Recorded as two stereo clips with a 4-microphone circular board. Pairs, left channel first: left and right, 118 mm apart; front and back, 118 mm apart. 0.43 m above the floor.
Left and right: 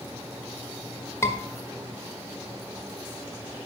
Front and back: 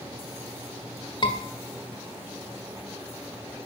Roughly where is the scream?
Ahead left.